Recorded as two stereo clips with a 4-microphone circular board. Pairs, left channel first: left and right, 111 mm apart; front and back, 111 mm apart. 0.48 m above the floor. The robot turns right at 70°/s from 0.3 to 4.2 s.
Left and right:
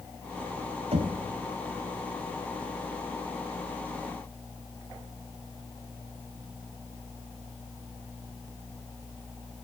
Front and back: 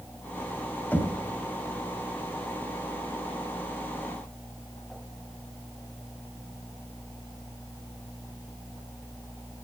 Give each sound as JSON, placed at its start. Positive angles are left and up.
{"t": 0.9, "sound": "knocking", "azimuth_deg": -75, "distance_m": 2.5}